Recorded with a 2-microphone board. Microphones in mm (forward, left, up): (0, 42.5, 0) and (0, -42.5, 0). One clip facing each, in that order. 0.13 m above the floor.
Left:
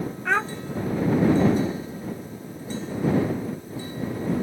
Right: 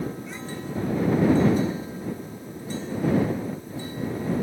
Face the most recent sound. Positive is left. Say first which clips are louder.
# left 13 dB
turn(degrees=75)  # may be behind; listen again after turning